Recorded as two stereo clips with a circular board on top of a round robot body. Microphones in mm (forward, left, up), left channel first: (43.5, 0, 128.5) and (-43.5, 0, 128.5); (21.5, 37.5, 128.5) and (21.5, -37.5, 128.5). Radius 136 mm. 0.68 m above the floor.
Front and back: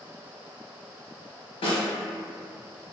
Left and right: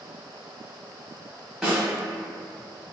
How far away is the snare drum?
About 0.8 m.